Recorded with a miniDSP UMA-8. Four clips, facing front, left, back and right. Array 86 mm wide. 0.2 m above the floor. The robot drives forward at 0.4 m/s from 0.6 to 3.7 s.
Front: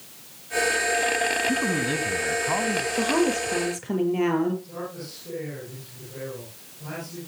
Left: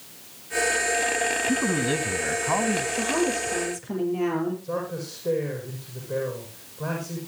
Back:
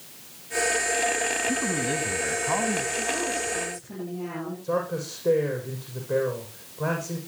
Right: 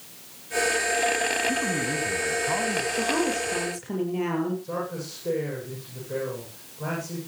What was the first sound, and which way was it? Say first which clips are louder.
A man speaking: left 3 dB, front 2 dB; 55° left.